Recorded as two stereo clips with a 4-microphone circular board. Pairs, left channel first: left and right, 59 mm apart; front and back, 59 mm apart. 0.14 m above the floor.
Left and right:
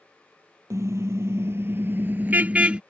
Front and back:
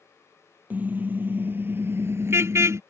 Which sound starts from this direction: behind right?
A car horn, at 0.7 s.